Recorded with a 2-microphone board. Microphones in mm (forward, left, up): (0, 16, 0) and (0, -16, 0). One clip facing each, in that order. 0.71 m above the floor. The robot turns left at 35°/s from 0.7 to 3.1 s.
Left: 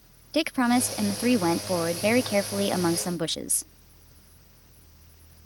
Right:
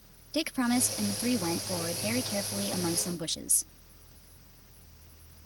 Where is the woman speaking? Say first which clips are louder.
Left 5 dB; 145° left; by 3.7 s 60° left.